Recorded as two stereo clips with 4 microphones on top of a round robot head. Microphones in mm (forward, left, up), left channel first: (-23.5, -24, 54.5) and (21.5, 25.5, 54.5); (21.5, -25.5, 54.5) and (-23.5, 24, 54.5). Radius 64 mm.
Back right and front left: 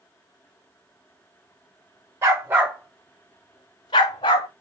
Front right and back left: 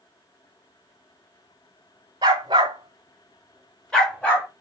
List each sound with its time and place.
2.2 s a dog barking: 95° left, 0.9 m; by 4.5 s 120° right, 1.2 m